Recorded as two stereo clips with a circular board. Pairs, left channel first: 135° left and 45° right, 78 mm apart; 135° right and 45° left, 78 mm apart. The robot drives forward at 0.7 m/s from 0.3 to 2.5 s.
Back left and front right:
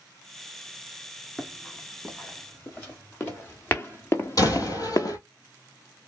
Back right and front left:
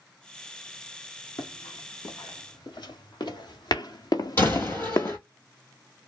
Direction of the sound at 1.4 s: 150° right.